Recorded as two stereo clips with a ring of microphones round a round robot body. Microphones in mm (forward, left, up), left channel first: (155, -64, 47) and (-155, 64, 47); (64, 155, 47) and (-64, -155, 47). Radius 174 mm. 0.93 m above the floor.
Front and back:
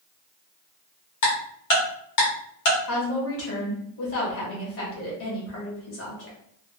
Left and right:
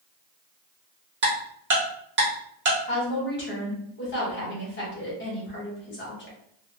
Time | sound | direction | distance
1.2 | ticking | 55° right | 1.1 m
2.9 | a woman speaking | 15° left | 1.3 m